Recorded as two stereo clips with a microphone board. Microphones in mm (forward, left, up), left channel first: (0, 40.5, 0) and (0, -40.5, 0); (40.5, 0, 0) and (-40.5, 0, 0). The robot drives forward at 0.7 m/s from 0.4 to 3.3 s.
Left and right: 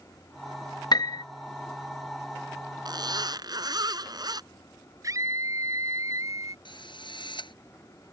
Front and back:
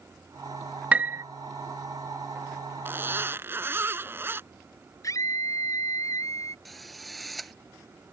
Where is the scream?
45° right.